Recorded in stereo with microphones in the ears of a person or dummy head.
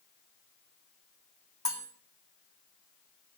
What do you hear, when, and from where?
1.6 s cutlery clinking: 20° left (ahead or behind), 1.2 m